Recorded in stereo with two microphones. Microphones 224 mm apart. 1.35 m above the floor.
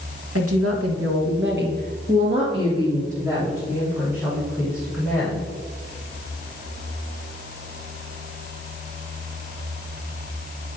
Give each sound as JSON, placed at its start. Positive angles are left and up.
{"t": 0.3, "sound": "a woman speaking", "side_deg": -70, "distance_m": 1.5}